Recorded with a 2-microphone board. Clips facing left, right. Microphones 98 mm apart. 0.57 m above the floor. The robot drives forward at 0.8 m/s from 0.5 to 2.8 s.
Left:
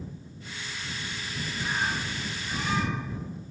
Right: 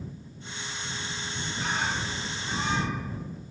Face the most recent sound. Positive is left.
turn(degrees=-40)  # may be behind; listen again after turning